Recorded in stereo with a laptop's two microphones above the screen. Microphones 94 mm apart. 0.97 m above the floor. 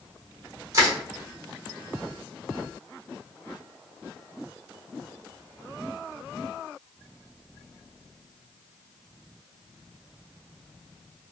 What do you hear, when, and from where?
0.7 s crushing: 35° right (ahead or behind), 1.0 m